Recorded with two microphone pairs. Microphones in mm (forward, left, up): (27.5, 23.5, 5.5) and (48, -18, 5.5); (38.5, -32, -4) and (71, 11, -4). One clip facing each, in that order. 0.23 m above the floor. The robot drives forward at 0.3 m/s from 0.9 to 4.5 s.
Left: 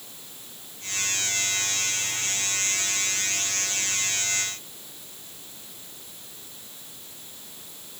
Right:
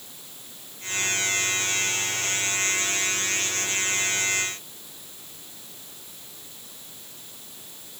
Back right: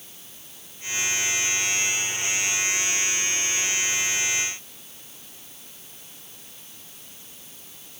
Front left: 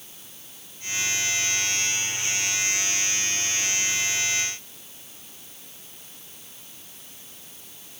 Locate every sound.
Only background noise.